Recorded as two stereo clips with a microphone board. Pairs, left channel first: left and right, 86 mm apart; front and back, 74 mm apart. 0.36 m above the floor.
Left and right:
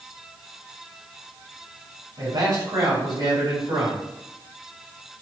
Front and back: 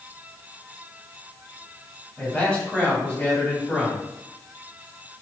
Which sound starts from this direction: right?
A man speaking, at 2.2 s.